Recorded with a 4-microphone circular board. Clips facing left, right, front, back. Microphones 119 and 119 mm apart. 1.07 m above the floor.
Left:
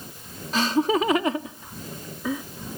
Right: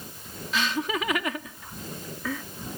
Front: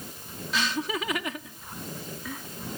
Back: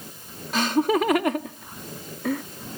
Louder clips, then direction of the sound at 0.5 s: Left 7 dB, back 9 dB; 140° left.